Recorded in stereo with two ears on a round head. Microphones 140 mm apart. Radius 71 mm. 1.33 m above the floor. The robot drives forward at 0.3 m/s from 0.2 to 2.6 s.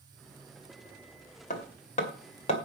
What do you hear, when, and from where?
1.5 s hammering: 50° left (ahead or behind), 2 m; by 2.5 s 45° left (ahead or behind), 2.5 m